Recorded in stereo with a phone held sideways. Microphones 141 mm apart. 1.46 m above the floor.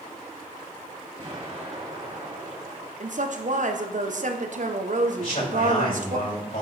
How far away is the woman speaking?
About 0.9 m.